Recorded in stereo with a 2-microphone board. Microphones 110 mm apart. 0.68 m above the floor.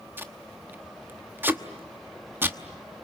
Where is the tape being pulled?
20° right (ahead or behind), 1.1 m.